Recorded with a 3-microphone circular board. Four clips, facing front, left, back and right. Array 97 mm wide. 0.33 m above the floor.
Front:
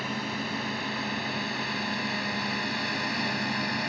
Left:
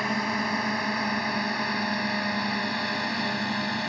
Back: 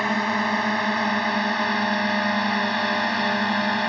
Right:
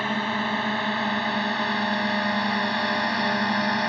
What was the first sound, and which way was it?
A drone, 170° right.